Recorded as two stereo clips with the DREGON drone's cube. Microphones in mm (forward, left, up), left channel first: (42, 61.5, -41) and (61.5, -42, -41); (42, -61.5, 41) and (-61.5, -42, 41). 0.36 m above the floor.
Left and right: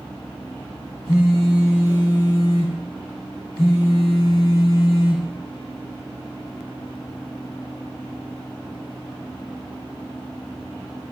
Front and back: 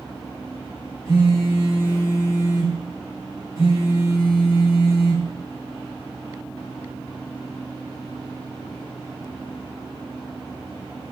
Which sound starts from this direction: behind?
A phone buzzing, at 1.1 s.